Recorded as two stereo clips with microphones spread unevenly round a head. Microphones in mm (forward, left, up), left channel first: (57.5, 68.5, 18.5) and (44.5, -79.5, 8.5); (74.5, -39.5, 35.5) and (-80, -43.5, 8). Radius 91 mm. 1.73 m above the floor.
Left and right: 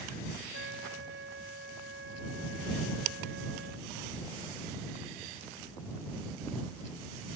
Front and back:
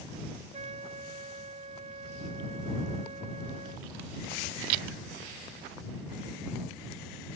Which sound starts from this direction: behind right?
A trumpet, at 0.5 s.